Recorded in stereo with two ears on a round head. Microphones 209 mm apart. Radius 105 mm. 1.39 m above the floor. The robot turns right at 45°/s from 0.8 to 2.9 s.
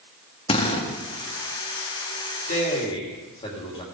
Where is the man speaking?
40° left (ahead or behind), 3 m; by 3.8 s 25° left (ahead or behind), 3 m.